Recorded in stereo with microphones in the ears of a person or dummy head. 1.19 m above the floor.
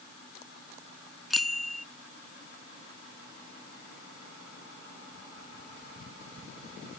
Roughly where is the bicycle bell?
Centre.